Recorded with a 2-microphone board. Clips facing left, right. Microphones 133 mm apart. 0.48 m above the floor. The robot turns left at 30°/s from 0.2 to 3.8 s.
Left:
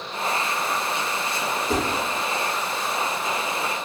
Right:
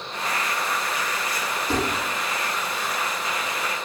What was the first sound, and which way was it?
Dishes clattering, 35° right (ahead or behind).